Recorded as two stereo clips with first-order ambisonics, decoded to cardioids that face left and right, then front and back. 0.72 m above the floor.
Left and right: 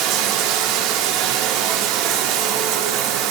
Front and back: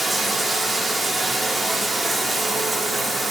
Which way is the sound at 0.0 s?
100° right.